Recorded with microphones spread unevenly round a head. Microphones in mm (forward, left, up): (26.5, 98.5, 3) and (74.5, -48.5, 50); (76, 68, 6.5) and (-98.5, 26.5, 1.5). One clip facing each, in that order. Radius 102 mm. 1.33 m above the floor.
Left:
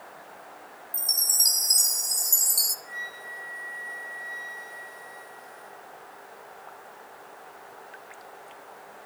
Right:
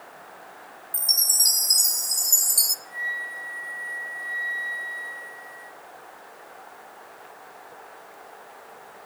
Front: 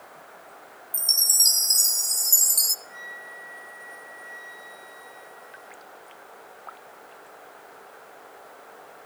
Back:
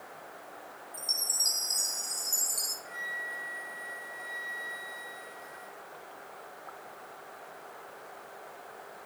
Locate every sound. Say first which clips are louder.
0.9 s a chime: right 1 dB, even; 15° left, 0.7 m
2.9 s a flute: right 3 dB, even; 150° left, 7 m